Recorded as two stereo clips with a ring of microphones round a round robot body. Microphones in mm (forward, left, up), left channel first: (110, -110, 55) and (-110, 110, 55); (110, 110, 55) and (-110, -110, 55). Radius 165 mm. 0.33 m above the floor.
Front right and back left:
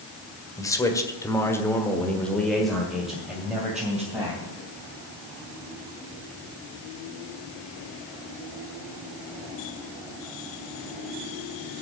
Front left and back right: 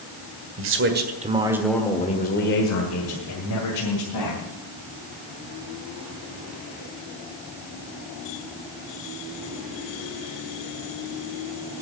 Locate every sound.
0.6 s a man speaking: 120° right, 1.9 m; by 4.4 s 50° left, 3.5 m